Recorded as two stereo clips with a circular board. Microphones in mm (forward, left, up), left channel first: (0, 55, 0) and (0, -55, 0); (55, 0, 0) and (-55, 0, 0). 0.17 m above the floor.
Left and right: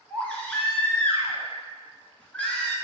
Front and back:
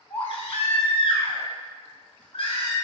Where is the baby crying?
10° left, 0.8 m.